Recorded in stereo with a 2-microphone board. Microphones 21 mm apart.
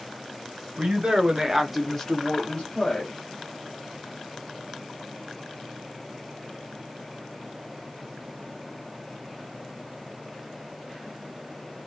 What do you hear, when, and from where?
0.8 s a woman speaking: 55° right (ahead or behind), 1.1 m; by 3.1 s 60° left (ahead or behind), 1.3 m